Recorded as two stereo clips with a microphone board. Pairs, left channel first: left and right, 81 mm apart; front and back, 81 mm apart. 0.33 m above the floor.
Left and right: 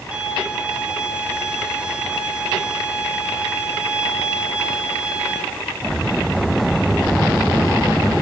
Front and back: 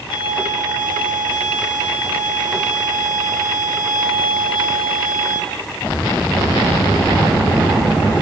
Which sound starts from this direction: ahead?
A violin, at 0.1 s.